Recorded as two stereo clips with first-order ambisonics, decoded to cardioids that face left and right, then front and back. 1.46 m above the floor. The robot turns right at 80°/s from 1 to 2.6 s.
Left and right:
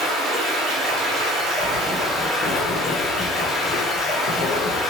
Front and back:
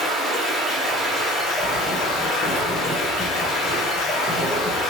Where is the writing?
40° left, 1.0 m; by 4.8 s 120° left, 1.0 m.